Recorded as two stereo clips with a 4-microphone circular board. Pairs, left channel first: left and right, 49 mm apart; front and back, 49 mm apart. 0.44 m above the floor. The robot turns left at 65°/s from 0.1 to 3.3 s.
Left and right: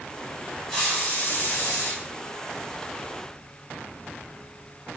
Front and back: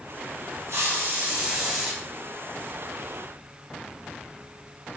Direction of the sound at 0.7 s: 160° left.